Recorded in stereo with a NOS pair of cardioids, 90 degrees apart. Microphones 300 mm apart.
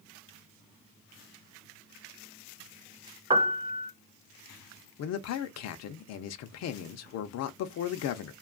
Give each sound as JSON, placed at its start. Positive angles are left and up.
{"t": 3.3, "sound": "a piano", "azimuth_deg": -15, "distance_m": 0.7}
{"t": 5.0, "sound": "a man speaking", "azimuth_deg": 60, "distance_m": 0.6}